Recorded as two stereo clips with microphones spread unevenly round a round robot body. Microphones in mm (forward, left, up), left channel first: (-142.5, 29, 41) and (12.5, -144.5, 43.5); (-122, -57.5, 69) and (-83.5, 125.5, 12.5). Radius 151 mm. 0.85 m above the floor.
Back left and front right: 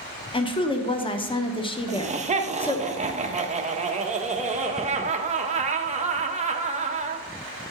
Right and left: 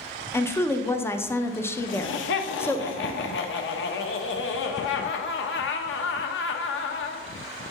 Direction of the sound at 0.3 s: 155° left.